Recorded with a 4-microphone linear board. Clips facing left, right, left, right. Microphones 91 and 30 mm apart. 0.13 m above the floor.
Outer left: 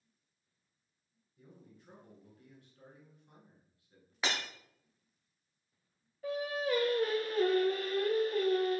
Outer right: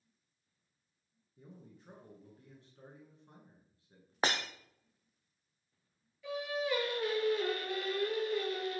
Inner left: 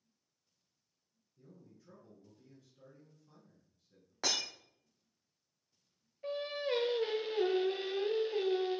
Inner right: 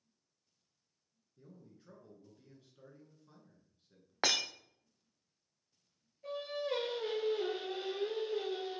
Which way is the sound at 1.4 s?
30° right (ahead or behind).